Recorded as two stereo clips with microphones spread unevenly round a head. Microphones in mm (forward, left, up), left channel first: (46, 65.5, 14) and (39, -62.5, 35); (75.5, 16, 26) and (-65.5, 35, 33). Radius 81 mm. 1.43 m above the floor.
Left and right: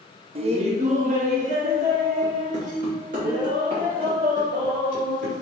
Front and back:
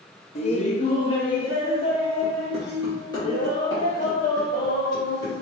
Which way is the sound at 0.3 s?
45° right.